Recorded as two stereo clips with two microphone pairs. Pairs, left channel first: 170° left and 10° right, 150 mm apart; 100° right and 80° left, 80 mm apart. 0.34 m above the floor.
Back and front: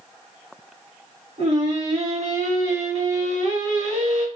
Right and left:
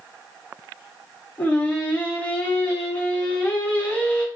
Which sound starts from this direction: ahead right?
Singing, at 1.4 s.